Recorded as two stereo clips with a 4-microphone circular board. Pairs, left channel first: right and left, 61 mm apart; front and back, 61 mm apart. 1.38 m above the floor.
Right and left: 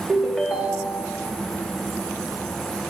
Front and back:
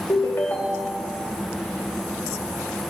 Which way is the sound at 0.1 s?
15° left.